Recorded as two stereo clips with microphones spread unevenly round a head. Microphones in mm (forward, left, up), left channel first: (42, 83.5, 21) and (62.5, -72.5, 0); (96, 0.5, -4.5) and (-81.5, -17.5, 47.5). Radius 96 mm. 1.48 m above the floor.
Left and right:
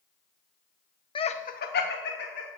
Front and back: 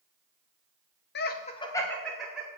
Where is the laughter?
40° left, 1.1 m; by 2.5 s 105° left, 2 m.